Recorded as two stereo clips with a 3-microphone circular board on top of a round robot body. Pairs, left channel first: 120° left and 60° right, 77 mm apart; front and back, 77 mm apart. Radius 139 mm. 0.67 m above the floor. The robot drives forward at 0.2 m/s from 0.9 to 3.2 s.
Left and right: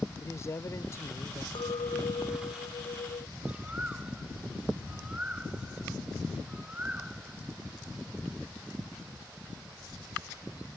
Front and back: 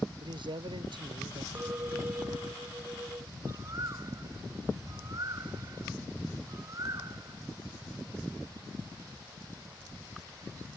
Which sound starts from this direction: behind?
A man speaking, at 0.2 s.